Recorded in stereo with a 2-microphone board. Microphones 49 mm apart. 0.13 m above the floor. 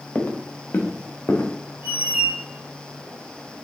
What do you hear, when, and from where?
0.1 s footsteps: 35° left (ahead or behind), 1.2 m; by 1.5 s 70° left (ahead or behind), 1.9 m
1.8 s a squeak: 35° right (ahead or behind), 0.6 m